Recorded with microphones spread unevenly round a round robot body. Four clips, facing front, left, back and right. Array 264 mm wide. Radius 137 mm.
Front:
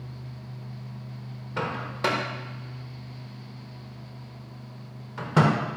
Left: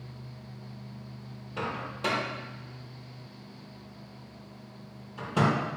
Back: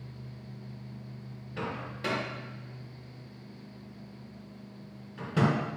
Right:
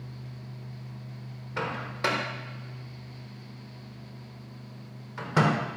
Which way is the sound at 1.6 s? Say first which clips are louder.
Right 2 dB, front 7 dB; 25° right.